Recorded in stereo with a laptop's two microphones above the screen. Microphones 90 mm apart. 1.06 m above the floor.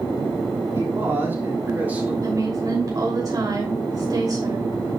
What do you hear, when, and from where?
0.7 s a man speaking: 30° right (ahead or behind), 3.5 m; by 2.1 s 15° right (ahead or behind), 4 m
2.2 s a woman speaking: 45° right (ahead or behind), 3 m